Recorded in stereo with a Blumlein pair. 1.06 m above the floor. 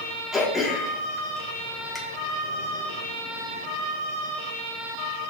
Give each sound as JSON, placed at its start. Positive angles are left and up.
{"t": 0.3, "sound": "throat clearing", "azimuth_deg": 15, "distance_m": 1.2}